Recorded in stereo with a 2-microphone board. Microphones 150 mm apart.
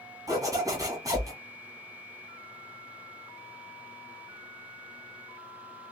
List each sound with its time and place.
0.3 s a zipper: 25° right (ahead or behind), 1.5 m